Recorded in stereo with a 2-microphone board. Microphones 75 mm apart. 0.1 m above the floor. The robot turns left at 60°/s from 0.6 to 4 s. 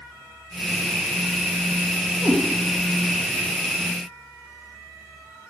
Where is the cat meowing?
35° right (ahead or behind), 0.9 m; by 2.4 s 30° right (ahead or behind), 0.9 m.